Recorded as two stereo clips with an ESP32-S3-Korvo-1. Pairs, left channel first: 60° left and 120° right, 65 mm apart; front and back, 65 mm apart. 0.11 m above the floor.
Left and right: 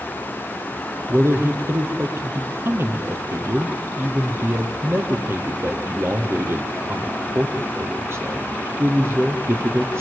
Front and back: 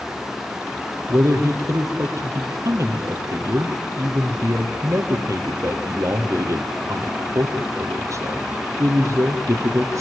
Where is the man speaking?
160° right, 3 m.